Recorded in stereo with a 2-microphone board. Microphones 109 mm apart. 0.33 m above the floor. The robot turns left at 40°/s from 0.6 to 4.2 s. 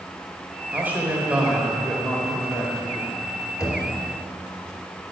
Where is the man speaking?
20° right (ahead or behind), 1.4 m; by 3.1 s 15° left (ahead or behind), 1.4 m.